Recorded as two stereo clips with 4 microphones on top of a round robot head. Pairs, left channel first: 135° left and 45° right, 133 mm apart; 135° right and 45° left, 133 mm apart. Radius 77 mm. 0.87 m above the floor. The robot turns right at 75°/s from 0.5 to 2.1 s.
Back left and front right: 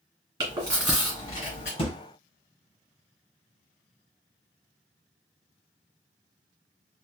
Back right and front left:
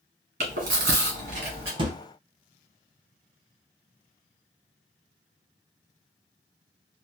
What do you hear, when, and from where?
0.4 s chewing: 15° left, 1.7 m; by 1.7 s 105° left, 1.7 m
1.8 s a thud: 95° left, 1.0 m; by 2.0 s 105° left, 1.0 m